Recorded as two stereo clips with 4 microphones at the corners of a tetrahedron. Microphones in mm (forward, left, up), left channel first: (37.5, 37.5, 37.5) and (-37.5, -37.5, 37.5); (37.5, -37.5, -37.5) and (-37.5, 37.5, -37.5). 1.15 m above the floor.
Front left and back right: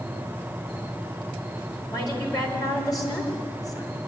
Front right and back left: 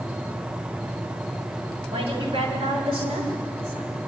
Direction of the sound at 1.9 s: 100° left.